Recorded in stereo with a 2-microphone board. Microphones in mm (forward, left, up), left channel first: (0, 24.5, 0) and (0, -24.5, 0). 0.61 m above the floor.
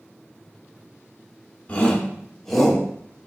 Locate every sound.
1.7 s a shout: 25° left (ahead or behind), 1.9 m; by 2.9 s 5° right (ahead or behind), 1.6 m